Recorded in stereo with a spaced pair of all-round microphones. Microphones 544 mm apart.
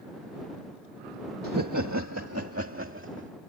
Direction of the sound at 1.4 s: 35° right (ahead or behind).